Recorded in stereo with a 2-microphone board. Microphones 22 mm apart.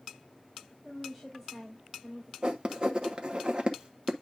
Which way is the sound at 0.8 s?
5° left (ahead or behind).